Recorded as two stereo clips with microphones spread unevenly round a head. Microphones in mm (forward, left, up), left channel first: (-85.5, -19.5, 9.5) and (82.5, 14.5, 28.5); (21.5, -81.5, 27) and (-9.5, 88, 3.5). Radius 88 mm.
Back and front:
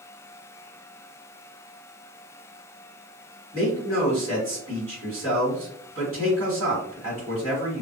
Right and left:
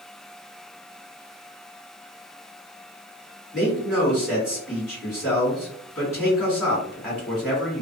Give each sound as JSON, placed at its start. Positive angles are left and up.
{"t": 3.5, "sound": "a man speaking", "azimuth_deg": 0, "distance_m": 1.6}